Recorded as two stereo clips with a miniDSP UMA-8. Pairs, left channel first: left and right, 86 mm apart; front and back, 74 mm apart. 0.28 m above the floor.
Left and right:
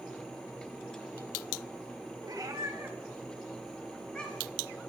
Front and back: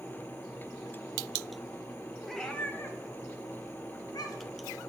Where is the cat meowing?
90° right, 0.9 m; by 4.6 s 15° left, 1.8 m.